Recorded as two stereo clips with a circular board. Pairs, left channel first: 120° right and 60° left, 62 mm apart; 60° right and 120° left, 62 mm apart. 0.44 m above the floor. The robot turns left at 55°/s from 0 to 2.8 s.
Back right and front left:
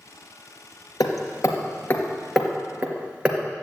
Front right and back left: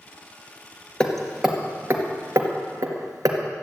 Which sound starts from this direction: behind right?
Hammering, at 1.0 s.